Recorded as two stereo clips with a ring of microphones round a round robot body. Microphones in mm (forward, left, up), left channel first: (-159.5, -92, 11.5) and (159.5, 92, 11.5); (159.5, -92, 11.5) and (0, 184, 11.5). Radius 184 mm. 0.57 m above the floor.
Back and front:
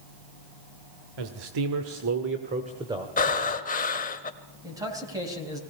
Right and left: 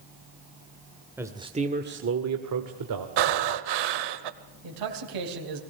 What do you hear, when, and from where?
1.2 s a man speaking: 35° left, 1.9 m; by 3.1 s 115° left, 2 m
3.2 s breathing: 140° left, 1.1 m
4.6 s a man speaking: 110° left, 3 m